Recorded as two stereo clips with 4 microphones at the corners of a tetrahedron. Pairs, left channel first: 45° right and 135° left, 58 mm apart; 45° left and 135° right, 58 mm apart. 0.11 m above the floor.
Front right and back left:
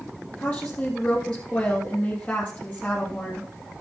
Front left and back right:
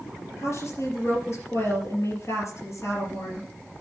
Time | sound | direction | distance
0.4 | a woman speaking | 20° left | 3.5 m